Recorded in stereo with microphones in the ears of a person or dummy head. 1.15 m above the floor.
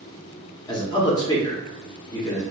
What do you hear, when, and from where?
0.7 s a man speaking: 20° left (ahead or behind), 0.6 m